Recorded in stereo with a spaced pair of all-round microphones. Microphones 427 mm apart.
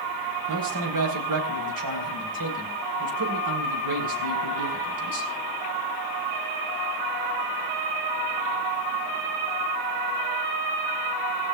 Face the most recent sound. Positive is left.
turn(degrees=-50)  # may be behind; listen again after turning